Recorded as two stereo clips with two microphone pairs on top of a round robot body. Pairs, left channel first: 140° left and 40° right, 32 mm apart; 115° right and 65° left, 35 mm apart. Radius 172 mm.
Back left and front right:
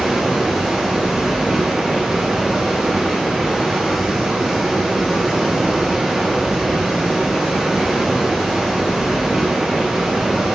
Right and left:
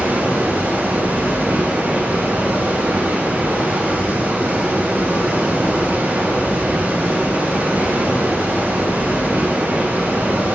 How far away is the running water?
About 6 m.